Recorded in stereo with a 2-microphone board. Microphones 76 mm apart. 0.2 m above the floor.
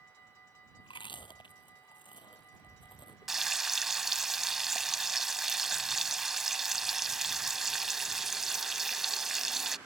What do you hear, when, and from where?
0.8 s chewing: 85° left
3.3 s frying: 5° right (ahead or behind)